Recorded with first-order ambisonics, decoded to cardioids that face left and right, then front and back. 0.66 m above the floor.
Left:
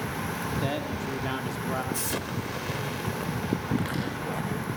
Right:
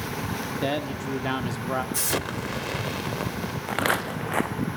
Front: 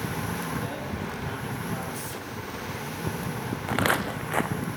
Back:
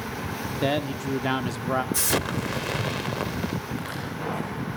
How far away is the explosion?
About 0.7 m.